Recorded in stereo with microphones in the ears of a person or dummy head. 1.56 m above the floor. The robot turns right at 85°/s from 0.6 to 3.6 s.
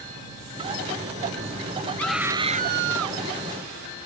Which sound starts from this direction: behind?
A scream, at 2.0 s.